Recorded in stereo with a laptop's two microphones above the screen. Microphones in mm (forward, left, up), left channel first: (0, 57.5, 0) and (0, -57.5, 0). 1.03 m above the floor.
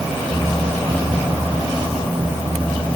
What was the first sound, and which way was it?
Only background noise.